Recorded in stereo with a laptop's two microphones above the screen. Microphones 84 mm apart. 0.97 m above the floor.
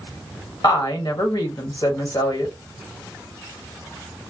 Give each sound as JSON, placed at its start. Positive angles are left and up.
{"t": 0.6, "sound": "a woman speaking", "side_deg": 50, "distance_m": 1.7}